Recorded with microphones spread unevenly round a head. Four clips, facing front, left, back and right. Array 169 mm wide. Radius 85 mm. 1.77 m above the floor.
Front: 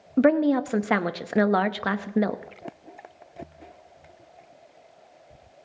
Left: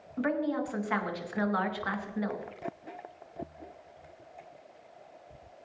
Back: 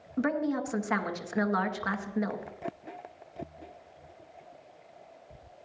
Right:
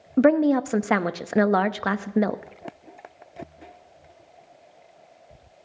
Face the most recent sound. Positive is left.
turn(degrees=-55)